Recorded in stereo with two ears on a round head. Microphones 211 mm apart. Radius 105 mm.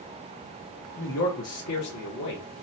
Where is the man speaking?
40° left (ahead or behind), 0.7 m; by 2.5 s 85° left, 1.4 m.